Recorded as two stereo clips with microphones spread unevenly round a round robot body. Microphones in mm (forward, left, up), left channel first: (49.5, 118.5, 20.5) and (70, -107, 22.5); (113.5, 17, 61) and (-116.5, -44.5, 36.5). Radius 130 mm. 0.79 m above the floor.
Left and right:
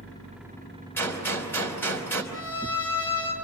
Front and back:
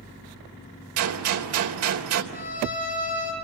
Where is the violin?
70° left, 5.5 m.